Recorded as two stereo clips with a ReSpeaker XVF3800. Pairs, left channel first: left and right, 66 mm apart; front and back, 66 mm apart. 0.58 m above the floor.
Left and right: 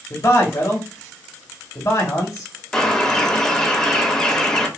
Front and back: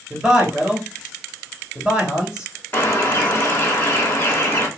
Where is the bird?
20° left, 1.3 m.